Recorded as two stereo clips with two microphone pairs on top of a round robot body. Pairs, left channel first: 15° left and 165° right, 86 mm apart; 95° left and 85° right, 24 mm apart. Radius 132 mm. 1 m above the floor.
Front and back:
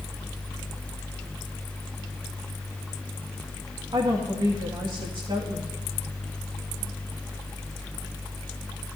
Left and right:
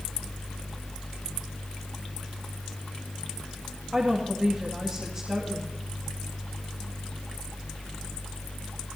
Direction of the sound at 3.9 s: 140° right.